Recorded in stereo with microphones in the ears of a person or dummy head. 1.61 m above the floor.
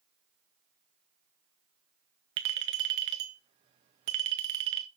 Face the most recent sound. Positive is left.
turn(degrees=-25)  # may be behind; listen again after turning